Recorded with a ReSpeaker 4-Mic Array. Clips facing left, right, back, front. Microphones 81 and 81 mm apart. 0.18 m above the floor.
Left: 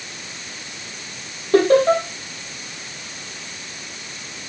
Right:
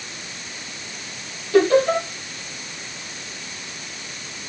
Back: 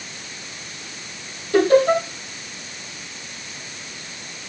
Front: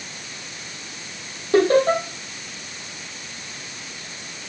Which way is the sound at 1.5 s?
50° left.